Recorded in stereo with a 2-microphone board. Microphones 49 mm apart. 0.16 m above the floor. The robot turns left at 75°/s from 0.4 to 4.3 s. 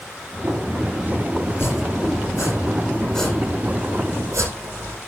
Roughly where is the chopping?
Left.